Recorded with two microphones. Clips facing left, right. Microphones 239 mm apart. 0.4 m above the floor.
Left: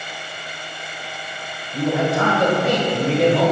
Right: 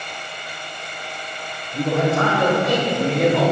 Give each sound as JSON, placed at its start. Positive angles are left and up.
{"t": 1.7, "sound": "a man speaking", "side_deg": 10, "distance_m": 2.0}